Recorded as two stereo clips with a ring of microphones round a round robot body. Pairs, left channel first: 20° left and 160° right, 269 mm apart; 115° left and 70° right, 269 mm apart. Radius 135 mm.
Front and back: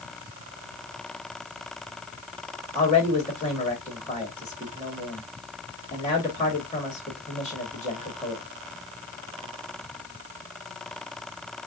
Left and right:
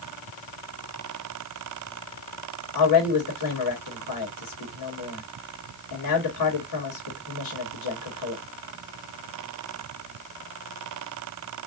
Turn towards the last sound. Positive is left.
turn(degrees=100)